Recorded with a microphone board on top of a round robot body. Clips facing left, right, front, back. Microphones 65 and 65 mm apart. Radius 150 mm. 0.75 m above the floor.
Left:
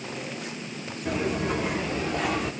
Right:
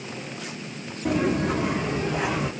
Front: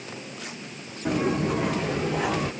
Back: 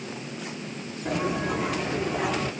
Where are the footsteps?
55° right, 1.4 m; by 2.5 s 15° right, 1.5 m.